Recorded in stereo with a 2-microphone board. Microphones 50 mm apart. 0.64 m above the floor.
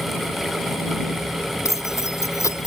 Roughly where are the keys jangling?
Left.